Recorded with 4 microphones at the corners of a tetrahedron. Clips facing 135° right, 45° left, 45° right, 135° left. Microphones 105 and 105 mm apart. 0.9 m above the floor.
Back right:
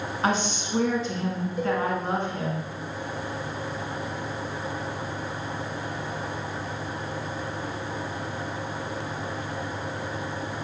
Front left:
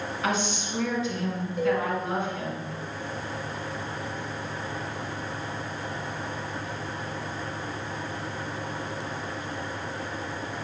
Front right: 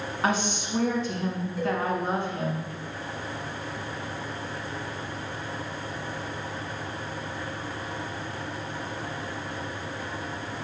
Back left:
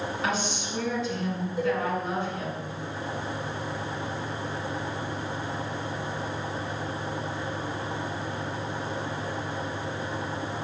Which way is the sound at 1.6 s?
70° left.